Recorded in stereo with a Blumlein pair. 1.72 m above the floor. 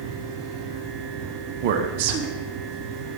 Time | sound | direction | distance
0.0 | a fan | 20° right | 5 m
1.6 | a man speaking | 50° right | 1.5 m